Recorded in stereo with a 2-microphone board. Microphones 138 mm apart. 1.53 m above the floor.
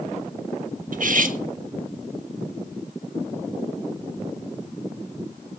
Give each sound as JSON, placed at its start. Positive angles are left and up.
{"t": 0.9, "sound": "cutlery clinking", "side_deg": -65, "distance_m": 1.5}